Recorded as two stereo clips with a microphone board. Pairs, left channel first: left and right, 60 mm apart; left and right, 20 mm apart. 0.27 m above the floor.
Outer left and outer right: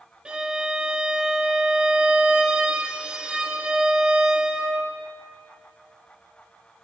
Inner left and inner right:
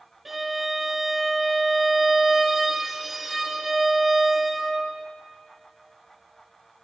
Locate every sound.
0.2 s a violin: 15° right (ahead or behind), 0.7 m